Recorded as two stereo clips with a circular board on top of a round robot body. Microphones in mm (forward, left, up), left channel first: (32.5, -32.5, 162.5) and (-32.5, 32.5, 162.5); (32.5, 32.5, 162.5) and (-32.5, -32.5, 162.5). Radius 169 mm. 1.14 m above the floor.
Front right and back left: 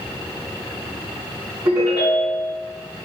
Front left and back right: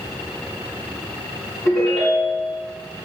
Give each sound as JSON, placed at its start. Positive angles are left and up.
{"t": 1.6, "sound": "a ringtone", "azimuth_deg": 85, "distance_m": 1.2}